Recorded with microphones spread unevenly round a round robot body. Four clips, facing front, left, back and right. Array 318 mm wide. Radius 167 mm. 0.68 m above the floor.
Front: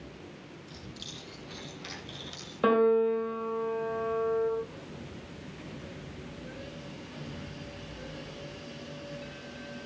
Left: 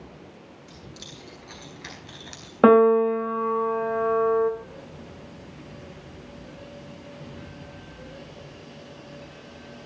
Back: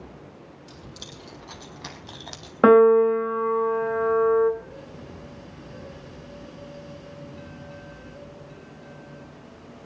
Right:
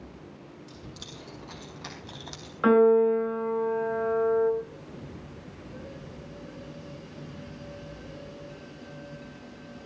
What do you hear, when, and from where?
0.7 s keys jangling: 170° left, 6 m
2.6 s a piano: 120° left, 3 m